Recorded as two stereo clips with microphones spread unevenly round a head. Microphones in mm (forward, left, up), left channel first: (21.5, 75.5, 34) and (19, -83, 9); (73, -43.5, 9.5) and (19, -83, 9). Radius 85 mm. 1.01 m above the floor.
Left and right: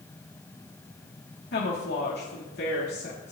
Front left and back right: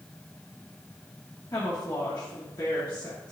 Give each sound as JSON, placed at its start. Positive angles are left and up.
{"t": 1.5, "sound": "a woman speaking", "azimuth_deg": 85, "distance_m": 1.4}